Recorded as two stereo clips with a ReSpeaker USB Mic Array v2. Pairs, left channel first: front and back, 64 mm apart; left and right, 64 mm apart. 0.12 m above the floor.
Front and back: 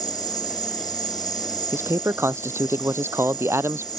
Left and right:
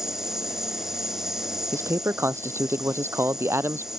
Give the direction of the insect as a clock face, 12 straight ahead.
12 o'clock.